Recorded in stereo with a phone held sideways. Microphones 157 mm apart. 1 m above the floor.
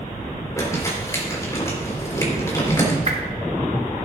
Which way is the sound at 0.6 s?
20° left (ahead or behind).